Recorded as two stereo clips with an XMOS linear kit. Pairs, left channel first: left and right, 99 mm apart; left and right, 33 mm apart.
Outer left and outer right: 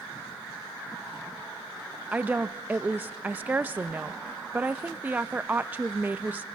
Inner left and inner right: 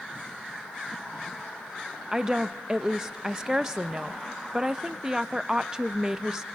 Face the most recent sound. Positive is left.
turn(degrees=-20)  # may be behind; listen again after turning